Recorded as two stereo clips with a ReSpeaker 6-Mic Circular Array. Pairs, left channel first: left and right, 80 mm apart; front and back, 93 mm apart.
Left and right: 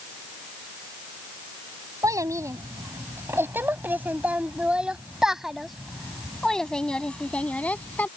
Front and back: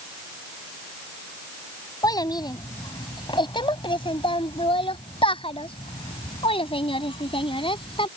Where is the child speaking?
45° right; by 8.1 s 20° left.